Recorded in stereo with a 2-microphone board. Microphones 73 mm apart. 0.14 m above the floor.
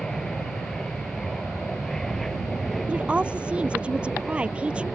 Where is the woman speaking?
15° right (ahead or behind).